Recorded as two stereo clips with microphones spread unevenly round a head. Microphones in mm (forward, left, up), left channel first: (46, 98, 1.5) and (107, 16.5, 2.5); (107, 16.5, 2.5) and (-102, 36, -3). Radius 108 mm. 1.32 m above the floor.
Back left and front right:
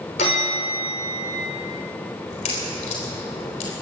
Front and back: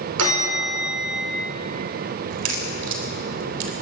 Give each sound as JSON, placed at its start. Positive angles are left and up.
{"t": 0.2, "sound": "a bell", "azimuth_deg": 160, "distance_m": 5.0}
{"t": 2.3, "sound": "a crack", "azimuth_deg": 160, "distance_m": 3.5}